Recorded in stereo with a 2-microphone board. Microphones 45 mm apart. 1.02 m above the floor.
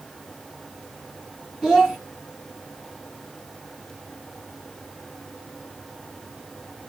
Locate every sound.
1.6 s a child speaking: 5° right (ahead or behind), 0.6 m